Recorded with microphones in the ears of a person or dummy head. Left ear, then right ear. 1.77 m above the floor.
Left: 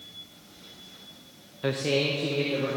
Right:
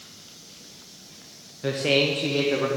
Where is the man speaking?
15° left (ahead or behind), 0.6 m; by 2.7 s 60° right (ahead or behind), 1.3 m.